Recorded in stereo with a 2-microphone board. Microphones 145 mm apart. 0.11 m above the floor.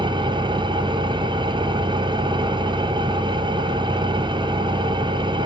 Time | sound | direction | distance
0.0 | an engine running | 30° right (ahead or behind) | 1.0 m